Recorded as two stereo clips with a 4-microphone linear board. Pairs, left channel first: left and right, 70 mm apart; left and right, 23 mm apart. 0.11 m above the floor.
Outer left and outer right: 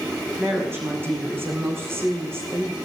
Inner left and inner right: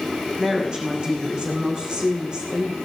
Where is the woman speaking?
35° right (ahead or behind), 5 m.